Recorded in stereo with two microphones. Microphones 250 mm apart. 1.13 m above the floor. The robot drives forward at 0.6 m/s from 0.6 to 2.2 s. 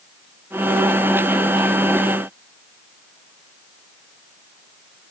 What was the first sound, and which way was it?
Only background noise.